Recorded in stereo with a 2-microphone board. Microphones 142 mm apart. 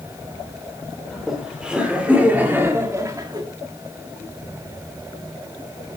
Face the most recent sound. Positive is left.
turn(degrees=-30)  # may be behind; listen again after turning